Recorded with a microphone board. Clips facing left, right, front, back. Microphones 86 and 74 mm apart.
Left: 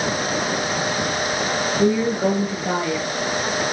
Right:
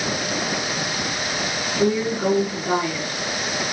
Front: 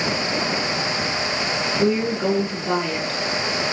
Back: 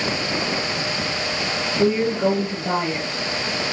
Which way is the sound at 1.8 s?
155° left.